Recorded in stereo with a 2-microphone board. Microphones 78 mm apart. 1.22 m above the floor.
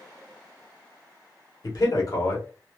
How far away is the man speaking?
About 1.5 m.